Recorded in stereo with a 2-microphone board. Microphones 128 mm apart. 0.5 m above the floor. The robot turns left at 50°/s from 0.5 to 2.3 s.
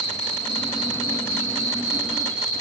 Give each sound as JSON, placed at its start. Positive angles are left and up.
{"t": 0.0, "sound": "an insect", "azimuth_deg": 55, "distance_m": 4.0}